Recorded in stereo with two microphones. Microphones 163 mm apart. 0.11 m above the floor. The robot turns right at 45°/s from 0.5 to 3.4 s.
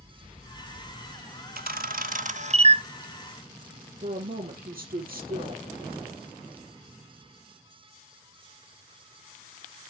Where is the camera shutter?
65° right (ahead or behind), 0.6 m; by 2.8 s 30° right (ahead or behind), 0.6 m.